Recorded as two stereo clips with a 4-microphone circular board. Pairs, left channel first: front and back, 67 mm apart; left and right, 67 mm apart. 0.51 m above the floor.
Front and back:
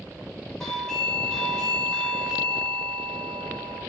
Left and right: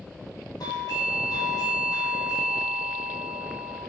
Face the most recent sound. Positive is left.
turn(degrees=85)